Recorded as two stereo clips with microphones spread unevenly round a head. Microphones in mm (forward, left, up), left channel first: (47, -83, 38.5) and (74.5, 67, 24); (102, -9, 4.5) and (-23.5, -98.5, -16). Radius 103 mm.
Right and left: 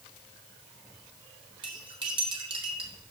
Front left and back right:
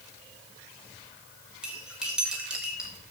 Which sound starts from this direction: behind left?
Cutlery clinking, at 1.6 s.